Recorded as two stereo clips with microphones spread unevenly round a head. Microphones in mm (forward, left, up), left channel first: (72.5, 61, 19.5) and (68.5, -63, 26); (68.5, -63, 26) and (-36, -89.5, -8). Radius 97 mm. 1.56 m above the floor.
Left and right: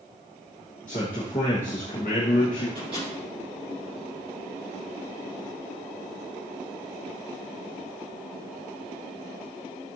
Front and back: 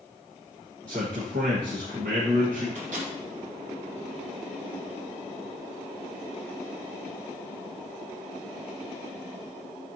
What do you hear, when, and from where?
0.9 s a man speaking: 145° left, 1.4 m
2.8 s a microwave: 160° right, 2 m